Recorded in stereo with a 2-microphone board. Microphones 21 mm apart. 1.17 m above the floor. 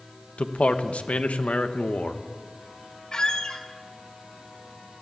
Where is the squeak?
40° left (ahead or behind), 1.8 m.